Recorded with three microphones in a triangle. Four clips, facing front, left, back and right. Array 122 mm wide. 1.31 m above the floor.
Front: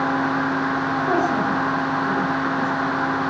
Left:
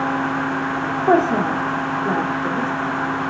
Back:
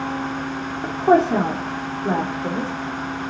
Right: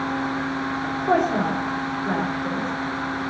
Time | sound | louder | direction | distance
0.8 | a woman speaking | left 5 dB, back 8 dB | 145° left | 3 m